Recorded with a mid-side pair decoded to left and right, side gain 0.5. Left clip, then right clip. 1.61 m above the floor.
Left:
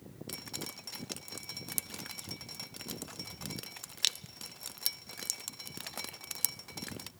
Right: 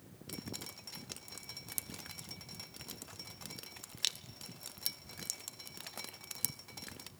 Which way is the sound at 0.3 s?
25° left.